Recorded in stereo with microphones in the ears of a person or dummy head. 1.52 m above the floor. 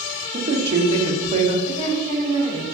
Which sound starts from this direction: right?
A woman speaking, at 0.3 s.